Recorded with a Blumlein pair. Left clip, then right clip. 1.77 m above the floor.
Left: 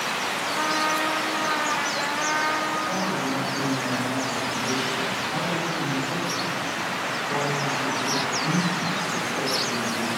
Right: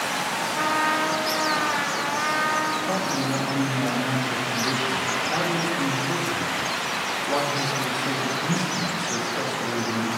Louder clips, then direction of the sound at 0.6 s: Right 2 dB; 5° right.